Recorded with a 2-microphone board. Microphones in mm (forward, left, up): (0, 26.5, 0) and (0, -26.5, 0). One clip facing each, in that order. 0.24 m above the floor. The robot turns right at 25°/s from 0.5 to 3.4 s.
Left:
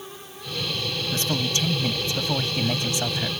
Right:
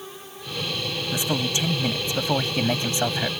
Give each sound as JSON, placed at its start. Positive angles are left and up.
{"t": 1.1, "sound": "a man speaking", "azimuth_deg": -150}